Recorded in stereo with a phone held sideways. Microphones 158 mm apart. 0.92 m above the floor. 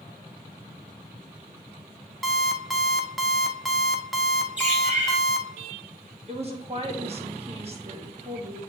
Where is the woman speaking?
40° right (ahead or behind), 1.6 m.